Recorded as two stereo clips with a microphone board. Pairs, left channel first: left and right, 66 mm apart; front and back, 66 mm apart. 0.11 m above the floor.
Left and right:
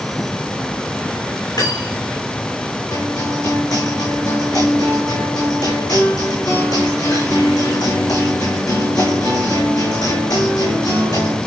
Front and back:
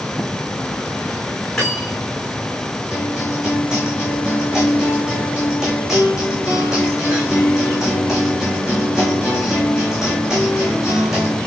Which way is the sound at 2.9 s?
95° left.